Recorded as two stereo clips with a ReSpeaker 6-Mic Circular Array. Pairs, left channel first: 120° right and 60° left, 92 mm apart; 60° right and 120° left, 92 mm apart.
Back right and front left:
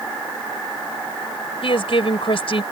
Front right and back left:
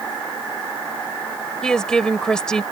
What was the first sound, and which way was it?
A woman speaking, 145° right.